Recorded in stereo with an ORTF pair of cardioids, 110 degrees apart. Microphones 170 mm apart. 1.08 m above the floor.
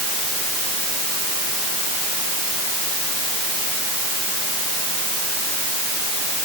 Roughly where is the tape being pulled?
I don't hear tape being pulled.